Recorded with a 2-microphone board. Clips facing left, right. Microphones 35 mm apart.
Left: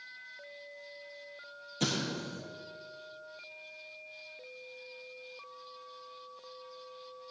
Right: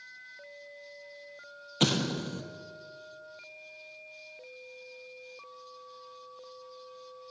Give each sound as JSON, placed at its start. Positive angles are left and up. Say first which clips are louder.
{"t": 1.8, "sound": "an explosion", "louder": "right 5 dB", "side_deg": -60, "distance_m": 0.7}